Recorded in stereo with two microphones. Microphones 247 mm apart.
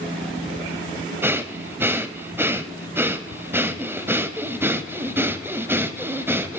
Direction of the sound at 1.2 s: 10° right (ahead or behind).